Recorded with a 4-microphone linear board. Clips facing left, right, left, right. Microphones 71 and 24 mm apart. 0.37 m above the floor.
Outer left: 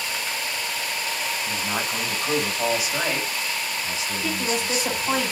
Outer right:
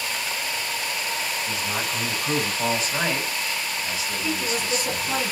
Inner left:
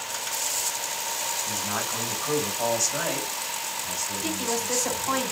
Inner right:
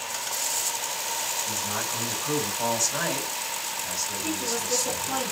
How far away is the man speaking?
About 2.5 m.